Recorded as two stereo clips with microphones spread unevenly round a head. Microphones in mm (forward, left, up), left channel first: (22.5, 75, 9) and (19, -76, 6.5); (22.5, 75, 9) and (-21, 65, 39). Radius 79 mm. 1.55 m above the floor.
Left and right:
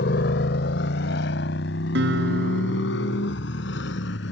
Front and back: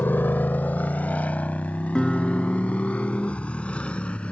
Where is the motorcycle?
75° left; by 4.3 s 85° left.